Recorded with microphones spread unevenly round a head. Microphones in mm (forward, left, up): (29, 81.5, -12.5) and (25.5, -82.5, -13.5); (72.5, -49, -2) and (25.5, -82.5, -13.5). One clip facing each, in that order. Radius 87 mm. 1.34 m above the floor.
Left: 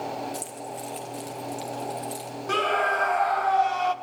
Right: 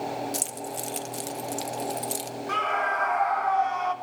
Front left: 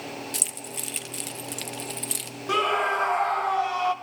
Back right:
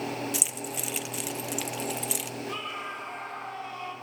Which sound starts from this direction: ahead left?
A scream, at 2.5 s.